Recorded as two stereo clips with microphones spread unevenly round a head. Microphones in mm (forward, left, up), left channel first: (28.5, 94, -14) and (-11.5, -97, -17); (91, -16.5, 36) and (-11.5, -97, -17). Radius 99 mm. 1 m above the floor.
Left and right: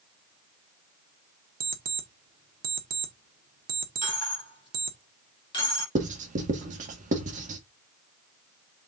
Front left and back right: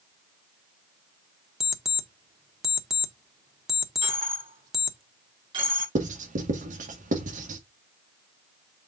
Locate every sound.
1.6 s an alarm clock: 55° right, 1.4 m
4.0 s a dropped coin: 145° left, 4 m
6.0 s writing: 155° right, 1.7 m